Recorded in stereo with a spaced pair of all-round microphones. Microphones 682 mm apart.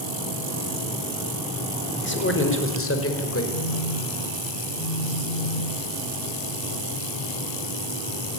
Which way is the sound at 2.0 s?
15° left (ahead or behind).